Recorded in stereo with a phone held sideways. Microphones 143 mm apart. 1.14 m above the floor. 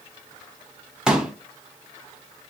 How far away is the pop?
About 0.8 m.